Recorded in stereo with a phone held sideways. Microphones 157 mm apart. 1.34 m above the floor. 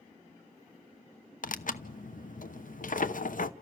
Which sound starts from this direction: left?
Tearing paper, at 1.4 s.